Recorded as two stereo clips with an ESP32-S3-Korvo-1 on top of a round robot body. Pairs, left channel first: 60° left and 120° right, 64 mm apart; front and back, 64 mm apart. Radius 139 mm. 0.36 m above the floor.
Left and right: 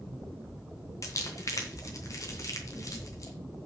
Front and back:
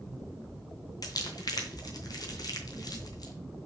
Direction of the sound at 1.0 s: 25° left.